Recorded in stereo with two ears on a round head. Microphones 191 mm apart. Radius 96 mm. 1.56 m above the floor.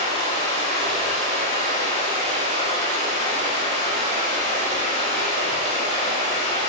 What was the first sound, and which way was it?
Running water, 30° right (ahead or behind).